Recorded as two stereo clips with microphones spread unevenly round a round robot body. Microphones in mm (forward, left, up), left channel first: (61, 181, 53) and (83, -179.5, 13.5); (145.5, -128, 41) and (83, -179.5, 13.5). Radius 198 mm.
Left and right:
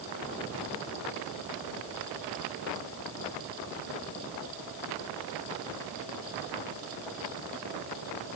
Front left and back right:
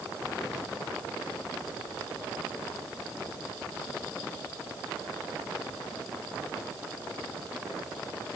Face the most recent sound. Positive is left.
No sound to turn to.